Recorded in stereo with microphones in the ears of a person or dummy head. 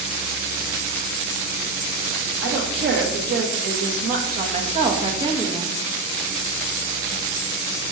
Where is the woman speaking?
65° right (ahead or behind), 2.5 m; by 5.8 s 10° right (ahead or behind), 1.7 m.